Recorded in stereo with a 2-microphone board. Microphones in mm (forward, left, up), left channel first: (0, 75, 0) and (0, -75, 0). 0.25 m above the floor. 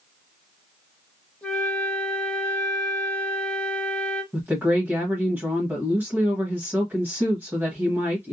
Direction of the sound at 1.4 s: 5° left (ahead or behind).